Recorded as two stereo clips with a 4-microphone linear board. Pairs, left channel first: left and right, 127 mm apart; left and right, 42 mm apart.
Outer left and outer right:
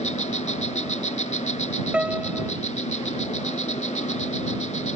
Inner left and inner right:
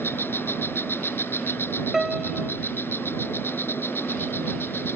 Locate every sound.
0.0 s an insect: 65° left (ahead or behind)
1.9 s a piano: 10° right (ahead or behind)